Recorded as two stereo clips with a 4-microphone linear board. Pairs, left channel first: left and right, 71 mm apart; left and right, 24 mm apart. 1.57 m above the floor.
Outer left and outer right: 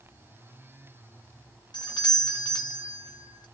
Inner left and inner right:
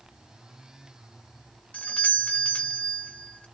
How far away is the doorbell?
About 0.9 m.